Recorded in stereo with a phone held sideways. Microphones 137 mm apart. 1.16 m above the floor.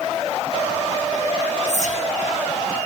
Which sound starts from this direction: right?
Whispering, at 1.7 s.